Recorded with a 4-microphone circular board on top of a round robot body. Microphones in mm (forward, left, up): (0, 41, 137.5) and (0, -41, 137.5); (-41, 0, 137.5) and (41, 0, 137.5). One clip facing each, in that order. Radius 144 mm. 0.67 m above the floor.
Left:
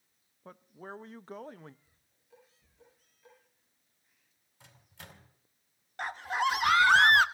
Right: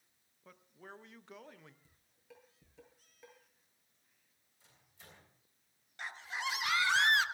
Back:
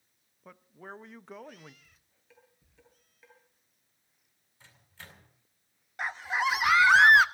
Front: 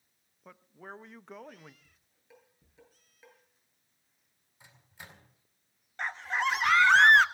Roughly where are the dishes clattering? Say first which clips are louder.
Right 2 dB, front 3 dB; right.